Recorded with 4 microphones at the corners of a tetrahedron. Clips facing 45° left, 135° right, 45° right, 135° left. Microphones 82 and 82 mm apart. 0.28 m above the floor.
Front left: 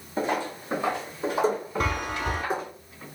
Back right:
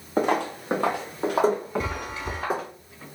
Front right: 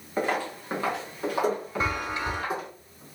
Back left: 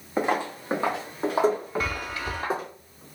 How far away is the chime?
About 0.5 m.